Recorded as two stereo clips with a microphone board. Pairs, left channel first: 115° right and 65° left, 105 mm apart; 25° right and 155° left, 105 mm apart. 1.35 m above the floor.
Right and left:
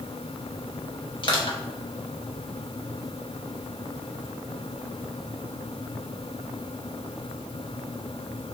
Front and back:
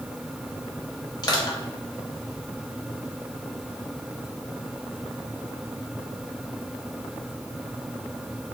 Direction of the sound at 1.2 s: 70° right.